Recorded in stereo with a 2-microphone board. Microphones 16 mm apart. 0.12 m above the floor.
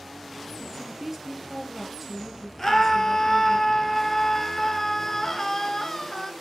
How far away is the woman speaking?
About 1.8 m.